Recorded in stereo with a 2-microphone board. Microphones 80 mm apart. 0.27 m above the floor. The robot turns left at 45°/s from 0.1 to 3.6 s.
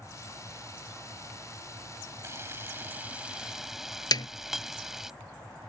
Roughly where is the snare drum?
Left.